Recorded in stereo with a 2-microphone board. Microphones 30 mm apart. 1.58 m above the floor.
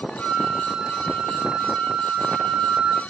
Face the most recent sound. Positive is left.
turn(degrees=-20)  # may be behind; listen again after turning